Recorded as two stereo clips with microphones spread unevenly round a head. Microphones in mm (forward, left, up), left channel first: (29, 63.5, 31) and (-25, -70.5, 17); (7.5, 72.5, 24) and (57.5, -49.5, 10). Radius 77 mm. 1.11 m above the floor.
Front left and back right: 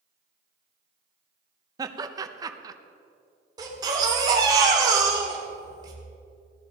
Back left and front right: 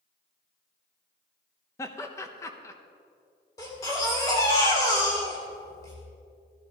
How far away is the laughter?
About 1.0 m.